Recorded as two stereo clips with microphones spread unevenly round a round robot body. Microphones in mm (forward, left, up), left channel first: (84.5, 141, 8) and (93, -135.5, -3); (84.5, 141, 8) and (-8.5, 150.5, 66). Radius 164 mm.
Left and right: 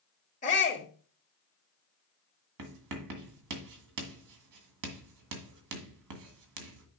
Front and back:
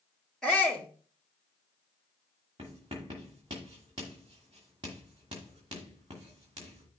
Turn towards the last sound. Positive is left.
turn(degrees=-110)